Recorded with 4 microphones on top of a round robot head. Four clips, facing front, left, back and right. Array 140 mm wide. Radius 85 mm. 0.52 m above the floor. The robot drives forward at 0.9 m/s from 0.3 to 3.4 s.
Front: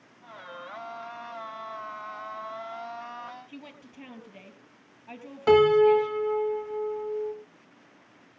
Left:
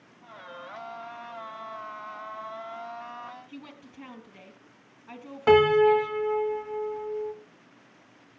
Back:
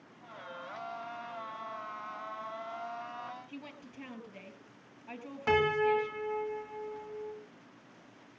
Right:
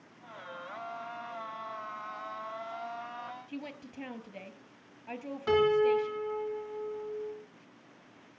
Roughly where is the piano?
Left.